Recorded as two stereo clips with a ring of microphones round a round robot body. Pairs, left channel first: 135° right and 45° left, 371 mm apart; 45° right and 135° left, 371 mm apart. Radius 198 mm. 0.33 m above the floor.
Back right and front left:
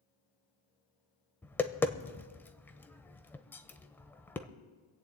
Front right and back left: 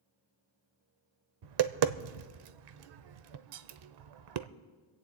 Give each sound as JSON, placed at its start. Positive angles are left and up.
{"t": 1.4, "sound": "tapping", "azimuth_deg": 140, "distance_m": 0.7}